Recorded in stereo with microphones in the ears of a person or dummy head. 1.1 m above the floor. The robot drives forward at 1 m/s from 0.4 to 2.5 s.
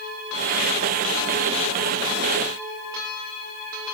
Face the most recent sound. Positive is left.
No sound to turn to.